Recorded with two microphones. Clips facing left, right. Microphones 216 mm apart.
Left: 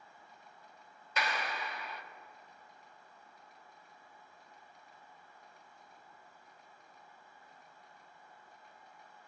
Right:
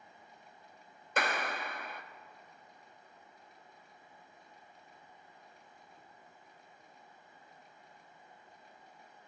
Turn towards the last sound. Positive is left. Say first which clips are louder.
# right 3 dB
turn(degrees=-50)  # may be behind; listen again after turning